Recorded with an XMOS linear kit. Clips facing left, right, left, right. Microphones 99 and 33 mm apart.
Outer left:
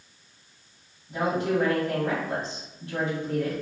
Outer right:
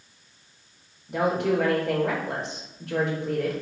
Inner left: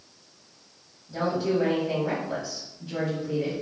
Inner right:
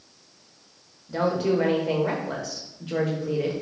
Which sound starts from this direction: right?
A woman speaking, at 1.1 s.